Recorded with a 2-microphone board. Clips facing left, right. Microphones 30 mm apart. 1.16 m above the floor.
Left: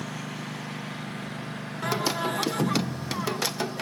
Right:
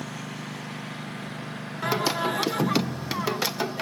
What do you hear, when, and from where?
0.0 s a lawn mower: 5° left (ahead or behind); by 3.8 s 5° right (ahead or behind)
1.8 s singing: 10° right (ahead or behind)